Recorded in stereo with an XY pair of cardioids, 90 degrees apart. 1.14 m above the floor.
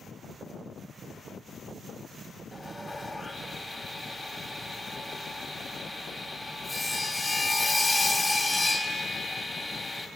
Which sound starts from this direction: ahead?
Sawing, at 2.5 s.